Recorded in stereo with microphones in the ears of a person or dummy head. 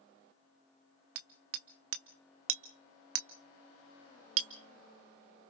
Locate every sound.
1.1 s hammering: 75° right (ahead or behind), 1.1 m